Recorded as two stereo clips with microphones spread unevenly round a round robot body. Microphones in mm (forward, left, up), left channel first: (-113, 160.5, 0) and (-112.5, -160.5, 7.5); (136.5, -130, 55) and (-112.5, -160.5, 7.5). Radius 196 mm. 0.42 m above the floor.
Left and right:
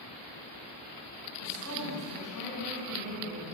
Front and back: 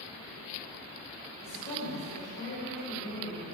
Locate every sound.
1.4 s a woman speaking: 75° left, 3 m